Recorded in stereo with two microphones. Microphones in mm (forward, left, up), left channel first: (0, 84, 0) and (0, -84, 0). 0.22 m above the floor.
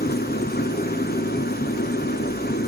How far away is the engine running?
About 0.8 m.